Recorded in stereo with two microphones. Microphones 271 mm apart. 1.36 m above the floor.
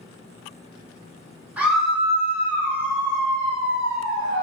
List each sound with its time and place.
1.6 s a scream: 5° right (ahead or behind), 1.1 m; by 4.4 s 15° left (ahead or behind), 3 m